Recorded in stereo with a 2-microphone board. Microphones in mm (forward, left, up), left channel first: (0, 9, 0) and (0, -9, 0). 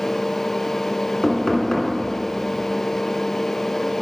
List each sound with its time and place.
1.2 s knocking: 45° left (ahead or behind), 1.4 m